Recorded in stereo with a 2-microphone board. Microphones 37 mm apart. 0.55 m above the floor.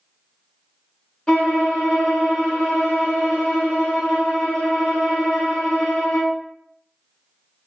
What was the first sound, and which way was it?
A violin, 20° left (ahead or behind).